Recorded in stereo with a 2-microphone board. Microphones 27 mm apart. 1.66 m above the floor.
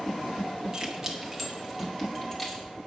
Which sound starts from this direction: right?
Keys jangling, at 0.7 s.